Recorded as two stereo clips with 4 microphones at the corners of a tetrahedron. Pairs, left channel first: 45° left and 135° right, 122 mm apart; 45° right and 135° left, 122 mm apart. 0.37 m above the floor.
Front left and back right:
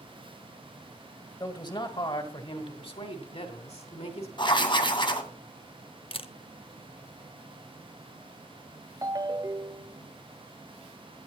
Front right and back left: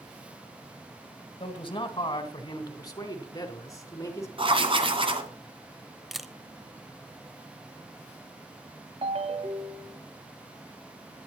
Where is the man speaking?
5° right, 2 m; by 4.3 s 20° left, 3.5 m.